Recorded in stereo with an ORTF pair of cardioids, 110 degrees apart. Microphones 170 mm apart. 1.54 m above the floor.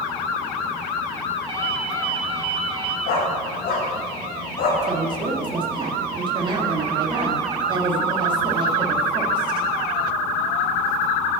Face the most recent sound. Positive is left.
turn(degrees=-30)